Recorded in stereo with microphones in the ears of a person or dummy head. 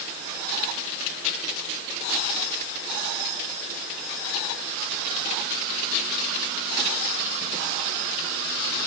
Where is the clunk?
No clunk in this recording.